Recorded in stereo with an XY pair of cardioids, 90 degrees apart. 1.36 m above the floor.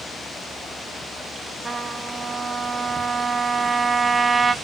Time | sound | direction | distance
1.6 | a trumpet | 25° right | 0.7 m